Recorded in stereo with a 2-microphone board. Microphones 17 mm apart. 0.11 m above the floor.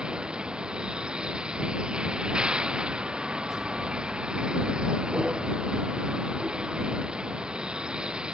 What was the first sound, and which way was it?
A vehicle, 70° right (ahead or behind).